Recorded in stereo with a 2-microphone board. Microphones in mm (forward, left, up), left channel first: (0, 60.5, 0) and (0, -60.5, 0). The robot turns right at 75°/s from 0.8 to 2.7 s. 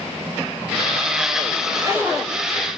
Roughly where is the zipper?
Ahead right.